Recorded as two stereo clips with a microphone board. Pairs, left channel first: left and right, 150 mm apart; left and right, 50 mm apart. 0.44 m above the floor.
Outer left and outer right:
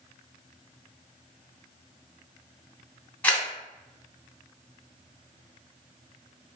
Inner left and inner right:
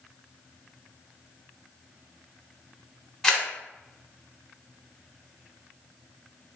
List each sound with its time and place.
3.2 s a camera shutter: 10° left (ahead or behind), 0.7 m